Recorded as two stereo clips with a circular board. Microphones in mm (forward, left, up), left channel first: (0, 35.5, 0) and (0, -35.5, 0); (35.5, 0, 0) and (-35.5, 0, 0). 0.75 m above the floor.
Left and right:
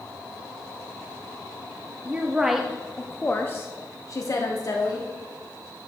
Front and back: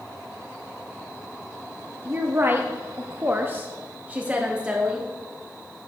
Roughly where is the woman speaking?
Behind right.